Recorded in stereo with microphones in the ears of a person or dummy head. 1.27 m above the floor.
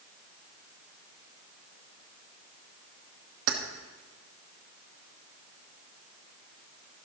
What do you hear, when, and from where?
3.5 s keys jangling: 65° right (ahead or behind), 1.3 m